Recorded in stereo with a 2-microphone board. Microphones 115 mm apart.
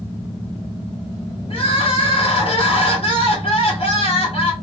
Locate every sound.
1.5 s crying: 55° left (ahead or behind), 1.5 m